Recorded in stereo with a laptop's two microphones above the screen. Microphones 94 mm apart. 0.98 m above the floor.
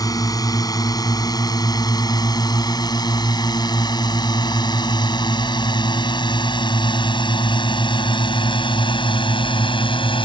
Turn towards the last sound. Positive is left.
turn(degrees=65)  # may be behind; listen again after turning